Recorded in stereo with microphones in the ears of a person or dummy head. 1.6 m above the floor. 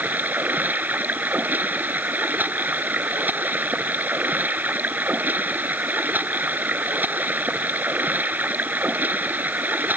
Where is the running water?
Centre (ahead or behind).